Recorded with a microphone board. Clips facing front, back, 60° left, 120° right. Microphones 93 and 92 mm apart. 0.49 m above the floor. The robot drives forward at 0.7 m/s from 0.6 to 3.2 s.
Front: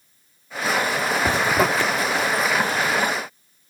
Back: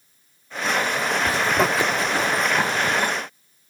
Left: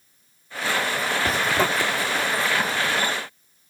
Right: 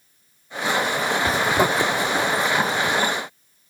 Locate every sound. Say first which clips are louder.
1.2 s a zipper: front 1 dB, right 3 dB; 25° right; by 3.0 s 170° right